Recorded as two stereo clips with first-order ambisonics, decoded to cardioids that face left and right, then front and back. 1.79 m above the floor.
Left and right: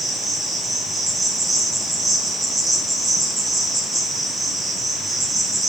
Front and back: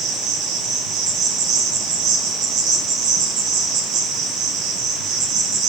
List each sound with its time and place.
0.0 s an insect: straight behind, 1.2 m